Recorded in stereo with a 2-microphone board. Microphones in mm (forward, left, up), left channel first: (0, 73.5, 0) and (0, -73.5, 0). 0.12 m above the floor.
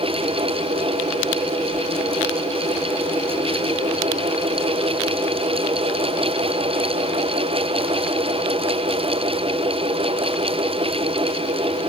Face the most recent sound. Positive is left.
No sound to turn to.